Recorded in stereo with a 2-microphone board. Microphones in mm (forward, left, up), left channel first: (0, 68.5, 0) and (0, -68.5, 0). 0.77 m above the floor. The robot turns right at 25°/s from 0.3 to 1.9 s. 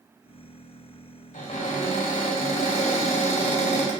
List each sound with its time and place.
1.3 s a cupboard door: 70° left (ahead or behind), 1.1 m; by 3.9 s 55° left (ahead or behind), 1.1 m